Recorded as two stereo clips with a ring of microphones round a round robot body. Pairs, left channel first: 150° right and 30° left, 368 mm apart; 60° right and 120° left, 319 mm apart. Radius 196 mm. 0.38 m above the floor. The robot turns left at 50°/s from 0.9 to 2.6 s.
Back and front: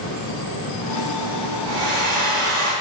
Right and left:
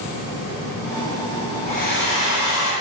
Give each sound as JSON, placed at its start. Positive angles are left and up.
{"t": 1.7, "sound": "a hair dryer", "azimuth_deg": 10, "distance_m": 3.0}